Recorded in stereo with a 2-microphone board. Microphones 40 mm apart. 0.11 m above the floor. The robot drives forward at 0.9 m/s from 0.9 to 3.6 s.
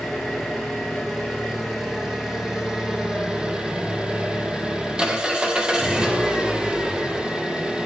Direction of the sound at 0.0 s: 10° right (ahead or behind).